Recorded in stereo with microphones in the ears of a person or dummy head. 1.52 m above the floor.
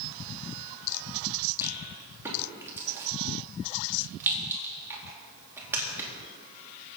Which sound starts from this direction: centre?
A rattle, at 1.6 s.